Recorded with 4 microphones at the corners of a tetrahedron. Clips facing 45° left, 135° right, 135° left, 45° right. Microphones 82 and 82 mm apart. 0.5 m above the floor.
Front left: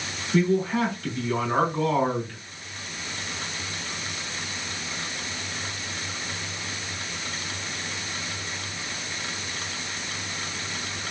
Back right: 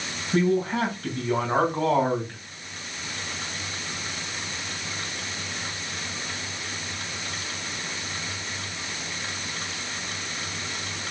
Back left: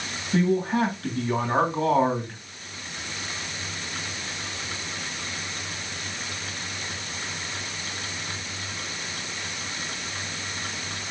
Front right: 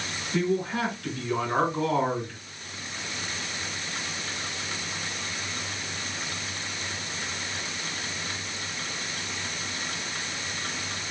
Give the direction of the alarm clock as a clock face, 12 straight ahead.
I don't hear an alarm clock.